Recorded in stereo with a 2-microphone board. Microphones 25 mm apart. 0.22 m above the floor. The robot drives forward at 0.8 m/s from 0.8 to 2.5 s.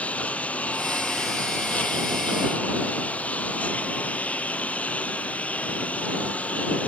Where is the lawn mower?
75° left (ahead or behind); by 6.9 s 85° left.